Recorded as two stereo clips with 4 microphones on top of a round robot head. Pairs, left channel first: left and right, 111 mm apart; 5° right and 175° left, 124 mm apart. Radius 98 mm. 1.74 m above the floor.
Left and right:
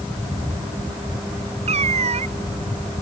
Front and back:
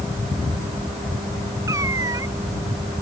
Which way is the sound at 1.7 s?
110° right.